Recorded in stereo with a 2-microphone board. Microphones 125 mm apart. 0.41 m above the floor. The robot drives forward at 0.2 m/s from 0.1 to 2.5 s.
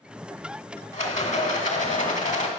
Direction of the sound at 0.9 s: 70° left (ahead or behind).